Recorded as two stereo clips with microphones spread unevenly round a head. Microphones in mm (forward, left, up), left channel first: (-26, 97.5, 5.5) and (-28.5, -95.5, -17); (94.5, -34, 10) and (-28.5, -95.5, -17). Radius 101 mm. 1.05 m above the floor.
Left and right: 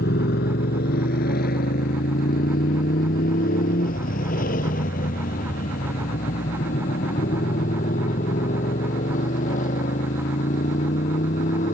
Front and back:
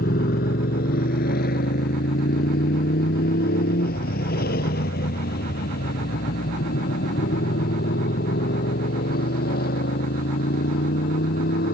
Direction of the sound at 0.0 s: 45° left.